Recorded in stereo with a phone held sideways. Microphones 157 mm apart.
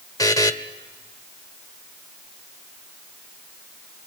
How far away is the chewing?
No chewing in this recording.